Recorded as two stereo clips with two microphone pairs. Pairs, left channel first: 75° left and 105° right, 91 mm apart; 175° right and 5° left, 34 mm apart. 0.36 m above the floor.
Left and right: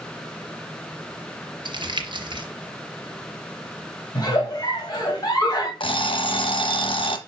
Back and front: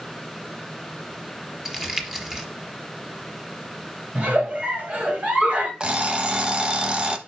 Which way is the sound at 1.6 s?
75° right.